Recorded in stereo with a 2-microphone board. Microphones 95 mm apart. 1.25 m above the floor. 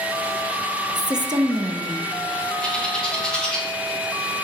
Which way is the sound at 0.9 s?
45° right (ahead or behind).